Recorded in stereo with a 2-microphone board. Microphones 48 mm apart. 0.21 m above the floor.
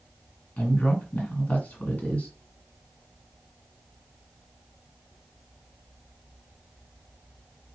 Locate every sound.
0.6 s a woman speaking: 35° left (ahead or behind), 2 m